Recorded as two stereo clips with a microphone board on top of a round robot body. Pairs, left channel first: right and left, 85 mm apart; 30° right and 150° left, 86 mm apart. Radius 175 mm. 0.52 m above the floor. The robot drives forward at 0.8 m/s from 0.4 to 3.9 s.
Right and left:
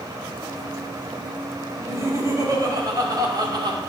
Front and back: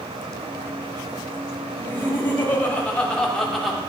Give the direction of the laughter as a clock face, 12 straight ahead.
11 o'clock.